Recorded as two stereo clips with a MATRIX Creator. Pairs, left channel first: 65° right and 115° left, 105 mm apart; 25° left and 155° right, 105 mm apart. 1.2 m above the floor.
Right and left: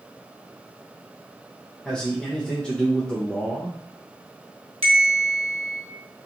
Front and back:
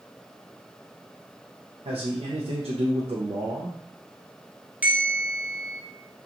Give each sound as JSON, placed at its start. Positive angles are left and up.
{"t": 1.9, "sound": "a man speaking", "azimuth_deg": -150, "distance_m": 0.6}
{"t": 4.8, "sound": "a bell", "azimuth_deg": 130, "distance_m": 0.9}